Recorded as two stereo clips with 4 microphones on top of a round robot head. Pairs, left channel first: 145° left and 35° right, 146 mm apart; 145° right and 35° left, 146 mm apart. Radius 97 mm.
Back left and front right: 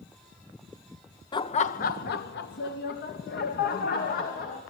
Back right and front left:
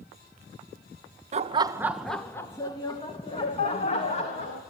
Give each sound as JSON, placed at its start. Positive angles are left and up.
{"t": 1.3, "sound": "laughter", "azimuth_deg": 80, "distance_m": 0.6}